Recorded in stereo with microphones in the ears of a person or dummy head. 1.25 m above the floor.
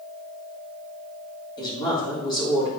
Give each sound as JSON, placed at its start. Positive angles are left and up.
{"t": 1.6, "sound": "a woman speaking", "side_deg": 35, "distance_m": 3.0}